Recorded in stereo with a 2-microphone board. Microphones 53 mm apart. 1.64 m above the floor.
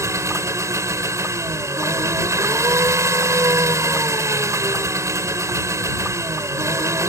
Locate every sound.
0.0 s an engine running: 80° right